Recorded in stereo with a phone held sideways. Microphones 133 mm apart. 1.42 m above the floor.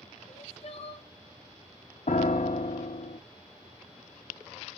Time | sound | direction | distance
0.3 | crying | 50° left (ahead or behind) | 1.1 m
2.1 | a piano | 60° left (ahead or behind) | 0.5 m